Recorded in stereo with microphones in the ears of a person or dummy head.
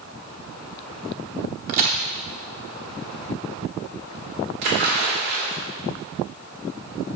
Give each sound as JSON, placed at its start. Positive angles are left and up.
{"t": 1.7, "sound": "a crack", "side_deg": -50, "distance_m": 0.9}
{"t": 4.6, "sound": "a splash", "side_deg": -60, "distance_m": 3.0}